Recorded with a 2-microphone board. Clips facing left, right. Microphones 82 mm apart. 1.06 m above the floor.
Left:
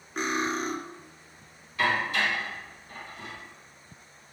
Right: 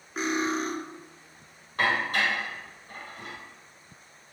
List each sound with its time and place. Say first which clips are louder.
0.2 s cutlery clinking: right 1 dB; centre (ahead or behind), 1.2 m
1.8 s dishes clattering: even; 45° right (ahead or behind), 3.5 m